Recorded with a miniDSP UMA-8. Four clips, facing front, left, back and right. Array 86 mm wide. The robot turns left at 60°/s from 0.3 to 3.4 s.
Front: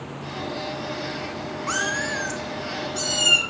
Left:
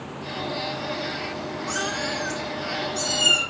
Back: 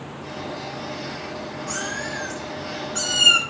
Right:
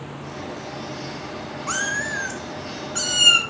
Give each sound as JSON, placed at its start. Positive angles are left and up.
{"t": 1.7, "sound": "a cat meowing", "azimuth_deg": -40, "distance_m": 1.1}